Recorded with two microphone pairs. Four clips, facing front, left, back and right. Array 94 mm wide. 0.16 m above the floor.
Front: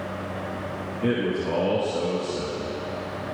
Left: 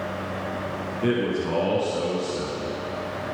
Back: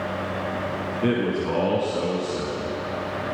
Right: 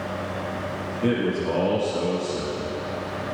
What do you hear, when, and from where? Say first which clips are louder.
1.0 s a man speaking: right 1 dB, back 1 dB; 170° left, 1.2 m